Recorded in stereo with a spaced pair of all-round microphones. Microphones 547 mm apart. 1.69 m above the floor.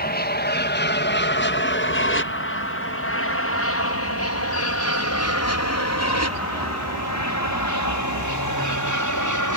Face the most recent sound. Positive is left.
turn(degrees=35)  # may be behind; listen again after turning